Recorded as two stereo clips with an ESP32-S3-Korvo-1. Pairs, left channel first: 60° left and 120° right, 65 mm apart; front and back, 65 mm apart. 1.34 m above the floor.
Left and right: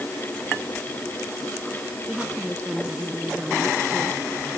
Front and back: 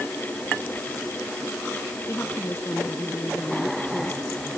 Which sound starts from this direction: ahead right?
A woman speaking, at 2.1 s.